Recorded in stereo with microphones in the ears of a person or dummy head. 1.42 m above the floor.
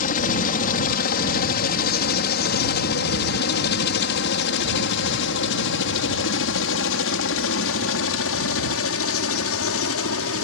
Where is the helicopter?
45° left (ahead or behind); by 10.4 s 70° left (ahead or behind).